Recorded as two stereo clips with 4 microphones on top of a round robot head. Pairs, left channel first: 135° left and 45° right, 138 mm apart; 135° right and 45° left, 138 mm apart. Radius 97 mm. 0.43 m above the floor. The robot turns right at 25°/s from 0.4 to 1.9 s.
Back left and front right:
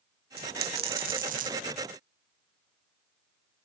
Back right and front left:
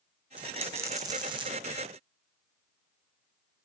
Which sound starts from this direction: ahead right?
A dropped coin, at 0.4 s.